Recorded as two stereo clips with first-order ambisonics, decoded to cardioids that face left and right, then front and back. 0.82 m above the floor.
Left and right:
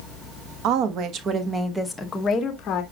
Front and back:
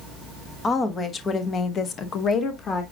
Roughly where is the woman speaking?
Right.